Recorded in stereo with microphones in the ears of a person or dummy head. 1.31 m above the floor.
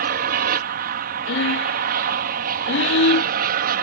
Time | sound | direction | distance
0.0 | an aircraft | 45° right (ahead or behind) | ?
1.3 | breathing | 70° left (ahead or behind) | ?